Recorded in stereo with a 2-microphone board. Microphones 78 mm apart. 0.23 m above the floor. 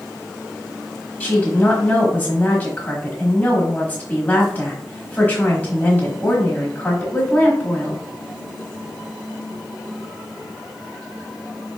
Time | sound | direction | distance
1.2 | a woman speaking | 20° left (ahead or behind) | 1.3 m